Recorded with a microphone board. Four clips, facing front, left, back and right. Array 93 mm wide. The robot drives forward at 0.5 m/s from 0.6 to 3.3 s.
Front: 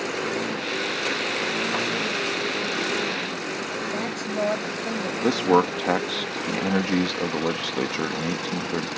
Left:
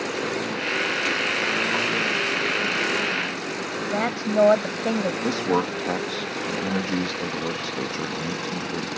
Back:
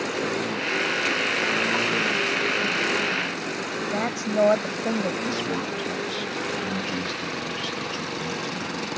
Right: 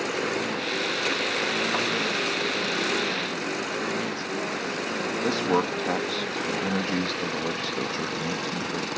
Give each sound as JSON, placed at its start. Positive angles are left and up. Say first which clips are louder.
{"t": 3.9, "sound": "a woman speaking", "louder": "left 6 dB, back 6 dB", "azimuth_deg": 110}
{"t": 5.2, "sound": "a man speaking", "louder": "right 2 dB, front 8 dB", "azimuth_deg": 5}